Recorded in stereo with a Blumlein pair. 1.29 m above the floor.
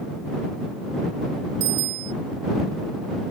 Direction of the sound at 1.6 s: 45° right.